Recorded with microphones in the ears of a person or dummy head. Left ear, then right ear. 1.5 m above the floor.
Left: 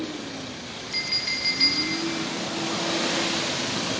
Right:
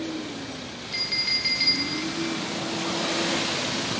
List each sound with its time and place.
0.9 s a clink: 5° left (ahead or behind), 0.7 m